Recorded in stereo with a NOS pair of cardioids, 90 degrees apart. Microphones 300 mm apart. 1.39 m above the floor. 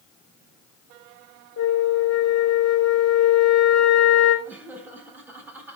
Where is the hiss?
I don't hear a hiss.